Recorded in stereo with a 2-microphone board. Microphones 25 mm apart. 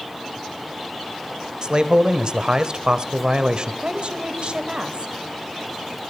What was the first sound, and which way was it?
A man speaking, 40° right (ahead or behind).